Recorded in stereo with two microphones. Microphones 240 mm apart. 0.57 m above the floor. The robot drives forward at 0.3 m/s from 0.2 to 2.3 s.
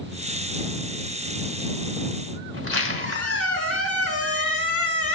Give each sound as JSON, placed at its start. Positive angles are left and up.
{"t": 2.5, "sound": "a squeak", "side_deg": -65, "distance_m": 3.0}